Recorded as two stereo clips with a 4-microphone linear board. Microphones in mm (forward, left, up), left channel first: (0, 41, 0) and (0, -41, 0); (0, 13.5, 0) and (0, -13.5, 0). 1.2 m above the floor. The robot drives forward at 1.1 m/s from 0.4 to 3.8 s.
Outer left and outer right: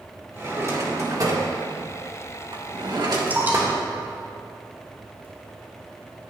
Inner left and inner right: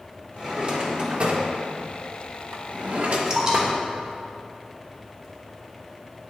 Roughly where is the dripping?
Right.